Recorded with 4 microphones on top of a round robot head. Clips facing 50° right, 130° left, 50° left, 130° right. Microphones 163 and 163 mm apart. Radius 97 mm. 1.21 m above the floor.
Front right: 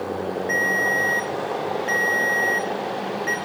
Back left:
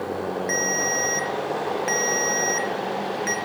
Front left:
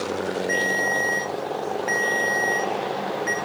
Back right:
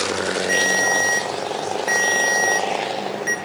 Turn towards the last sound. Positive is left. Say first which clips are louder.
# front right 1 dB, back right 3 dB
turn(degrees=175)